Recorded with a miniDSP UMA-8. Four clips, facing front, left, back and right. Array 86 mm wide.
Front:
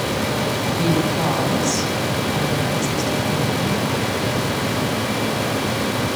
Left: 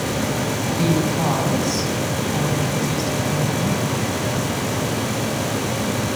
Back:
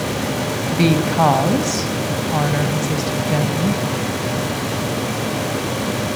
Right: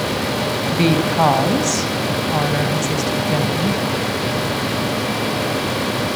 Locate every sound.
0.7 s a woman speaking: 135° right, 3 m